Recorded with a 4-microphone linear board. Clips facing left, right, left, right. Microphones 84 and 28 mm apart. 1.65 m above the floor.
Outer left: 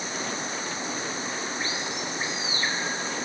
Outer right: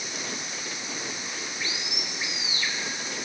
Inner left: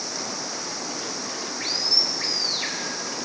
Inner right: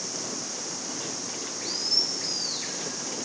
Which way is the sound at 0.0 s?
35° left (ahead or behind).